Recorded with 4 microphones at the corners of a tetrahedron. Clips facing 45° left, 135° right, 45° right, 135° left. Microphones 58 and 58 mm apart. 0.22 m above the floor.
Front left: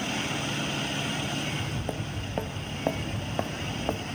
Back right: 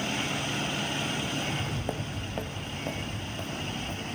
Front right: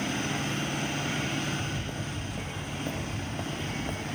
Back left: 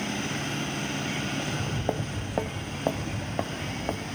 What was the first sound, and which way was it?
Footsteps, 155° left.